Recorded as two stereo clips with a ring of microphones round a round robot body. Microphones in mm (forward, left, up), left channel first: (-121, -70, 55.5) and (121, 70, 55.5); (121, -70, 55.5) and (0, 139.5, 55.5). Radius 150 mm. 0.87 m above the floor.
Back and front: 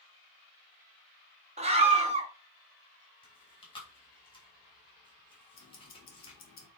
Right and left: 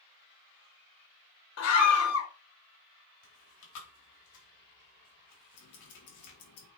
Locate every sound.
1.6 s a scream: 40° right, 2.0 m
3.2 s chewing: 75° right, 3 m
5.5 s ticking: 90° right, 2 m